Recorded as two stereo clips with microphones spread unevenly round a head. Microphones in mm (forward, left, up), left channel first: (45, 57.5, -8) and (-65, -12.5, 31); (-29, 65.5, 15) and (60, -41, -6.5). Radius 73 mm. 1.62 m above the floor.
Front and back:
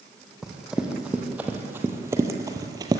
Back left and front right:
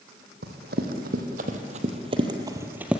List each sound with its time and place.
0.4 s running footsteps: 70° right, 3.5 m; by 3.0 s 145° right, 2 m